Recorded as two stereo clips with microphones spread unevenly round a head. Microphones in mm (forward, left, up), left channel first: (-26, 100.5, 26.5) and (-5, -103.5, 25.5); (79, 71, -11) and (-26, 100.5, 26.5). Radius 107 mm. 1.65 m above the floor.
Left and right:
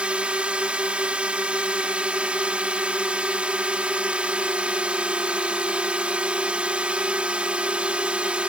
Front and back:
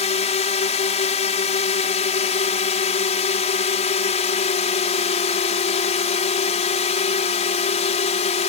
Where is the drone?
Straight ahead.